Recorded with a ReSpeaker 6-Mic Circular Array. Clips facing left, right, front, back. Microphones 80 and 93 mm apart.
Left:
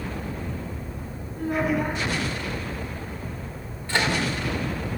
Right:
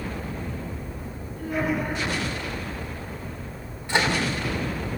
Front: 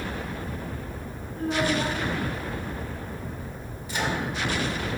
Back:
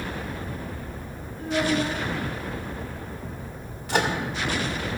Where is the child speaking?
35° left, 3 m.